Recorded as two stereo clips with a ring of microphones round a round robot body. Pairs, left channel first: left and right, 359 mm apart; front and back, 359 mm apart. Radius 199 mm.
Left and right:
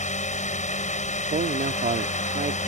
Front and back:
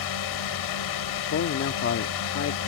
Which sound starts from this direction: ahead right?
A man speaking, at 1.3 s.